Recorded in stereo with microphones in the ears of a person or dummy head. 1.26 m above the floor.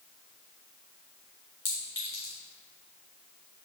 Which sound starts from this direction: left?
A clink, at 1.6 s.